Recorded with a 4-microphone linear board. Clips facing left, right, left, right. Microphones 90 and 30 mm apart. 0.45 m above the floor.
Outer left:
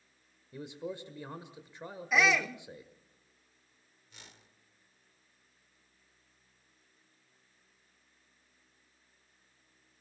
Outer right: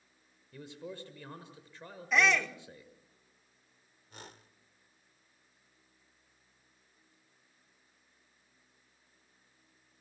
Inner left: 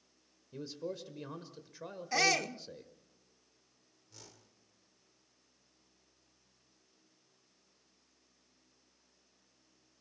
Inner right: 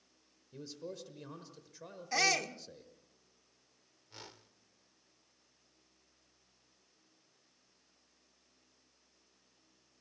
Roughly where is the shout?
Centre.